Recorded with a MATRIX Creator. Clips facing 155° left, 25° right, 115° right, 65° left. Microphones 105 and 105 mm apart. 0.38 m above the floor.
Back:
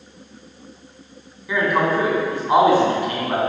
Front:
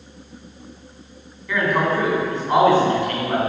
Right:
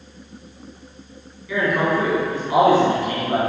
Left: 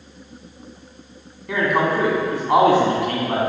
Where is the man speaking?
80° left, 2 m.